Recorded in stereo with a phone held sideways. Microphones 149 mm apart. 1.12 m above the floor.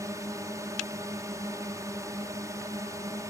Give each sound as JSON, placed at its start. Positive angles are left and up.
{"t": 0.0, "sound": "a drone", "side_deg": -20}